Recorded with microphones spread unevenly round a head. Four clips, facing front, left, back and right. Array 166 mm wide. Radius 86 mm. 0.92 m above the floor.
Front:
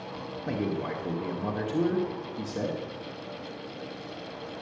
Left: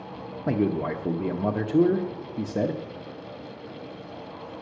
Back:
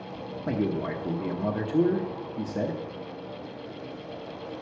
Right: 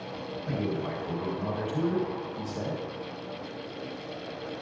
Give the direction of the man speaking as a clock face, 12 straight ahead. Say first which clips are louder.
Left 7 dB, back 3 dB; 9 o'clock.